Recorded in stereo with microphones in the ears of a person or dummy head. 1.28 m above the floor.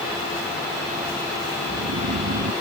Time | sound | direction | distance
1.6 | snoring | 90° right | ?